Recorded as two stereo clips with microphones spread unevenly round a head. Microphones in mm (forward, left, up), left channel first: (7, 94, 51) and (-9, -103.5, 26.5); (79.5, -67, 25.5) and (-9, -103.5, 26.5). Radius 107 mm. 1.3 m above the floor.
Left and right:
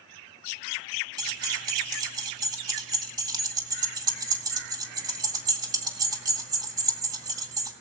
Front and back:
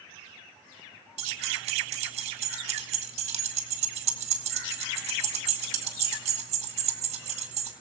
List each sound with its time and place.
1.2 s keys jangling: 165° right, 1.6 m